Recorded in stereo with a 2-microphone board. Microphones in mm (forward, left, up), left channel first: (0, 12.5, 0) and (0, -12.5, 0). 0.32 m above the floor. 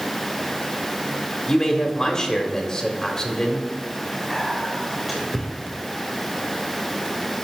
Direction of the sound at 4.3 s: 5° right (ahead or behind).